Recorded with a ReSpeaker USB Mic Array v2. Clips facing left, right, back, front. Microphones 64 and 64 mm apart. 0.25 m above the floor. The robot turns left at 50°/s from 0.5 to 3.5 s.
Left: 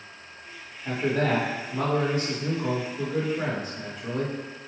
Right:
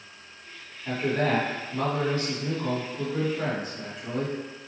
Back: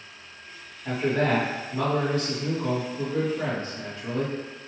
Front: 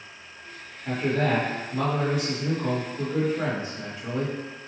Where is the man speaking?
140° left, 1.4 m; by 4.3 s 5° left, 1.4 m.